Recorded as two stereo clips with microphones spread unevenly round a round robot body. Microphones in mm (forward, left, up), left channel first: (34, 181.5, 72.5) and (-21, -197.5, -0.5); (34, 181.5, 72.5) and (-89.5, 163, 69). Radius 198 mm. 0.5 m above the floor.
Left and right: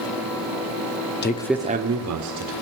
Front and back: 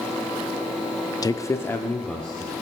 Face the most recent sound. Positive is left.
turn(degrees=-80)